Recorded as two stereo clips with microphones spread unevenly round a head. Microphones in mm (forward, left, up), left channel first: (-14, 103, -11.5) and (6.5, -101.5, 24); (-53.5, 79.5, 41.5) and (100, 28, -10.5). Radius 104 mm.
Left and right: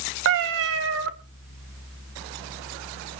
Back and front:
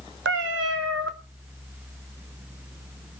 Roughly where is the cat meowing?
Ahead right.